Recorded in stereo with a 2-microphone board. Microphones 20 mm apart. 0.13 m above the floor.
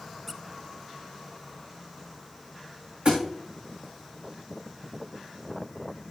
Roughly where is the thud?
Right.